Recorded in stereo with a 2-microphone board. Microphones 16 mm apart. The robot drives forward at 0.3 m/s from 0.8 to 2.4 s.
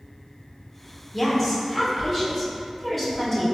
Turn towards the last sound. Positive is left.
turn(degrees=10)  # may be behind; listen again after turning